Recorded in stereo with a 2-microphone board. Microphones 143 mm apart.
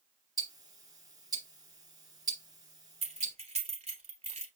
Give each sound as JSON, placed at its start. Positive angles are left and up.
{"t": 0.4, "sound": "ticking", "side_deg": -25, "distance_m": 2.0}
{"t": 3.0, "sound": "keys jangling", "side_deg": -45, "distance_m": 1.5}